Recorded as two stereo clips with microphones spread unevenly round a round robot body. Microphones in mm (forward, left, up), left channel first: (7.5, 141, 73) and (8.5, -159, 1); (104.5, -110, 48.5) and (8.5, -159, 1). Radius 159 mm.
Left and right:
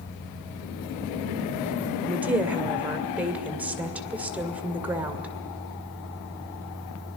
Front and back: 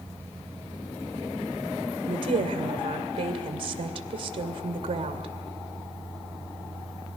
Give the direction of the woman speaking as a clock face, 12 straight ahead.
6 o'clock.